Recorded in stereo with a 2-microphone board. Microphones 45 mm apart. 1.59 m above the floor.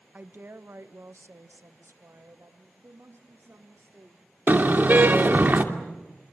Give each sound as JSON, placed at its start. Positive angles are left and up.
{"t": 0.1, "sound": "a woman speaking", "side_deg": -40, "distance_m": 1.2}
{"t": 2.8, "sound": "a woman speaking", "side_deg": -65, "distance_m": 3.0}
{"t": 4.5, "sound": "a car horn", "side_deg": -40, "distance_m": 2.5}